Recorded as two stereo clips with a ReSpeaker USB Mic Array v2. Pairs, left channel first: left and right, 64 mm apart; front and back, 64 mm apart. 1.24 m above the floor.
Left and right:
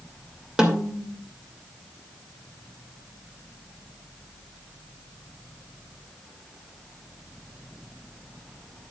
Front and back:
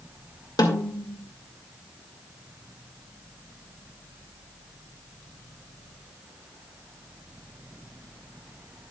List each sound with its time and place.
0.6 s a snare drum: 10° right, 2 m